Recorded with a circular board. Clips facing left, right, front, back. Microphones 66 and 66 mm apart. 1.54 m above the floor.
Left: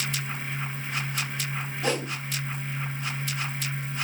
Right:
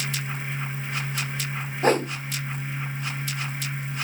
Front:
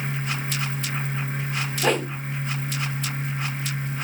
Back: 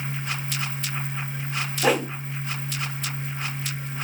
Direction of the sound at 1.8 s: 95° right.